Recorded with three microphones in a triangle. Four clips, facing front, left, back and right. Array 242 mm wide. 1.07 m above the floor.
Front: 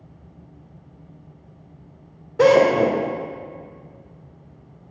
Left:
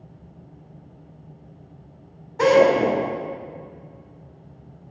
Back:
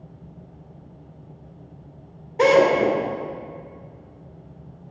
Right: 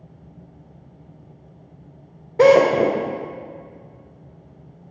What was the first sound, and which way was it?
A drill, 75° right.